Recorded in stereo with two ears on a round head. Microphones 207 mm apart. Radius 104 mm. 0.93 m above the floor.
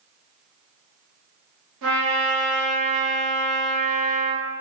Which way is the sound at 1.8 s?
60° right (ahead or behind).